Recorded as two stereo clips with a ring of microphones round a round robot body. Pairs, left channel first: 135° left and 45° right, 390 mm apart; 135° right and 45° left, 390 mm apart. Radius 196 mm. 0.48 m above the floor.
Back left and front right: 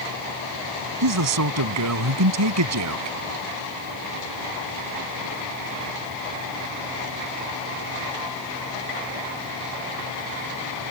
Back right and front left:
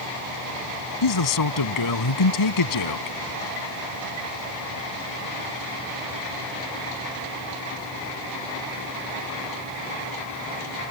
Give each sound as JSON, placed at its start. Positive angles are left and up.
{"t": 1.0, "sound": "a man speaking", "azimuth_deg": -95}